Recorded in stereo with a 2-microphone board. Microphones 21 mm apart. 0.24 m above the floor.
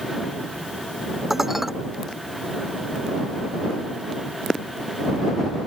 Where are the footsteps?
No footsteps in this recording.